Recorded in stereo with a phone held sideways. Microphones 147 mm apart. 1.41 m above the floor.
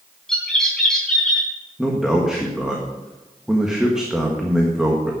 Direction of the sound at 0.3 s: 5° left (ahead or behind).